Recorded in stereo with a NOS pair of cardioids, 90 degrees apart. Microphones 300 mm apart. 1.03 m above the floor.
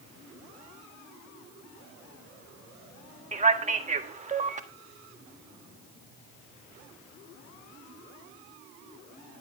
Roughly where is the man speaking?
Ahead right.